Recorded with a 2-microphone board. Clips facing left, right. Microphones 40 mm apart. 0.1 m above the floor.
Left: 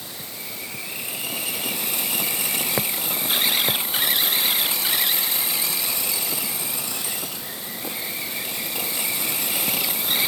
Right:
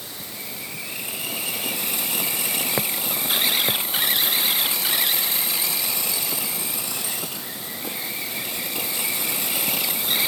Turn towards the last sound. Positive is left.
No sound to turn to.